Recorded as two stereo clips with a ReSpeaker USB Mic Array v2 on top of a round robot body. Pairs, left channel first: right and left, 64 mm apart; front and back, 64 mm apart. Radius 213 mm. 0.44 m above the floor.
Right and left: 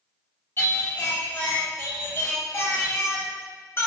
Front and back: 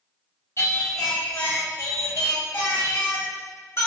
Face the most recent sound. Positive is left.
turn(degrees=-45)